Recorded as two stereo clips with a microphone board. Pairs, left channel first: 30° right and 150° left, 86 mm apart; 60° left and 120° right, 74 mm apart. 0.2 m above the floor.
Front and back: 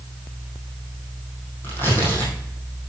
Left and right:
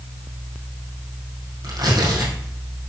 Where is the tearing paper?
95° right, 3.5 m.